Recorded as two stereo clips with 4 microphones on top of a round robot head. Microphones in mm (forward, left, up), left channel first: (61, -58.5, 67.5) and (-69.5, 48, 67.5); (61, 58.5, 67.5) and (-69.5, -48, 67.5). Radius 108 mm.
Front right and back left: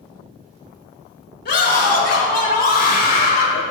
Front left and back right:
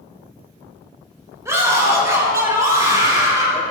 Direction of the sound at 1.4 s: 70° right.